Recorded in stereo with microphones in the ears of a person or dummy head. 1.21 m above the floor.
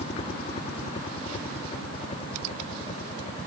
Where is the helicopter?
30° left (ahead or behind); by 3.5 s 25° left (ahead or behind).